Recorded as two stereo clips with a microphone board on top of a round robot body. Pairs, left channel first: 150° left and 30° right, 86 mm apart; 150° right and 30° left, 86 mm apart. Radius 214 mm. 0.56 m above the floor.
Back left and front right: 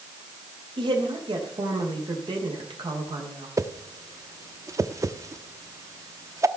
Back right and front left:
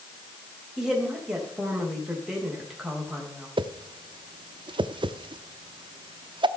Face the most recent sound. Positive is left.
turn(degrees=20)